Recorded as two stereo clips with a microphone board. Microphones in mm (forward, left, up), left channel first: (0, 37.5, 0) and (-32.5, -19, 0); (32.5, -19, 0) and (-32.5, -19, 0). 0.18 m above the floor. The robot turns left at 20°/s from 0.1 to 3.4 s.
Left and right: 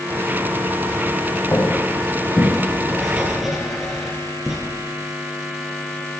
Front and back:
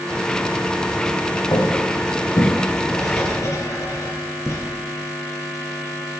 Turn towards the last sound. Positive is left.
turn(degrees=-35)